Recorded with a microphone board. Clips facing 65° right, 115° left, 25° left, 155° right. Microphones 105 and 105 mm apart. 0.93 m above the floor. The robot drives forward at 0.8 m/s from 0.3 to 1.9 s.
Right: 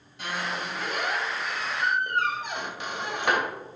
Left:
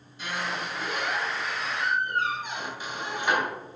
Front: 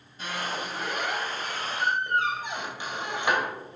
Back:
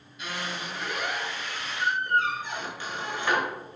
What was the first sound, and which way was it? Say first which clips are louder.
A squeak: even, front 2 dB; 30° right.